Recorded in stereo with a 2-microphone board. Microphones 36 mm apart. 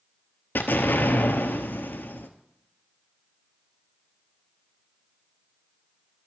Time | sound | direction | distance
0.6 | an explosion | 65° left (ahead or behind) | 0.7 m